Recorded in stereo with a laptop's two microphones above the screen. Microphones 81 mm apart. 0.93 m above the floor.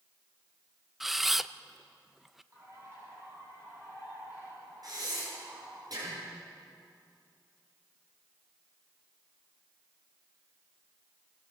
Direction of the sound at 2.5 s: 35° right (ahead or behind).